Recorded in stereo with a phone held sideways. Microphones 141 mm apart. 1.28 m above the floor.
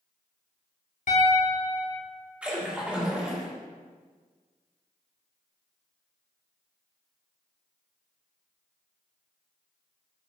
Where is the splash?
10° right (ahead or behind), 2.5 m.